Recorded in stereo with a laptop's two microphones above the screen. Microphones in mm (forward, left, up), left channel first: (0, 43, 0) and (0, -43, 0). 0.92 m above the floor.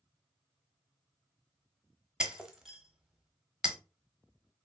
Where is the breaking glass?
5° right (ahead or behind), 0.8 m.